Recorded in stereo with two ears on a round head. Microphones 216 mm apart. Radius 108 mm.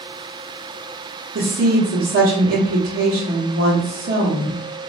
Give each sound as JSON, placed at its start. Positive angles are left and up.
{"t": 1.4, "sound": "a woman speaking", "side_deg": -40, "distance_m": 0.9}